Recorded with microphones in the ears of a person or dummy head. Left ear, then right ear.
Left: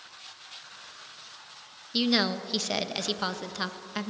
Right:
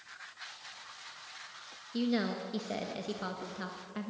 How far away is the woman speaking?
About 1.4 m.